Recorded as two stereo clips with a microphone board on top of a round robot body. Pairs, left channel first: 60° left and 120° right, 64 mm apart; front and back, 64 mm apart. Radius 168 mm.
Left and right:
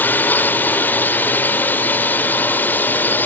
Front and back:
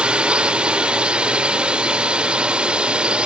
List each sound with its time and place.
0.0 s a drone: 110° left